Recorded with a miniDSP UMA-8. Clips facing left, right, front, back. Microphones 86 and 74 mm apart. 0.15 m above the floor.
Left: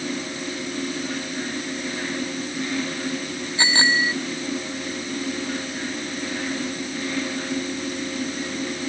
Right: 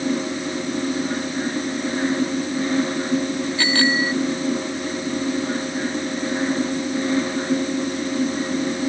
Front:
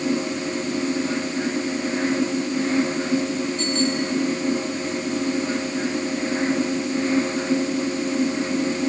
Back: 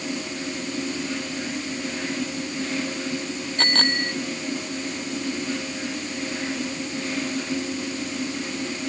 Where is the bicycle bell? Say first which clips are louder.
Even, back 2 dB; 155° left.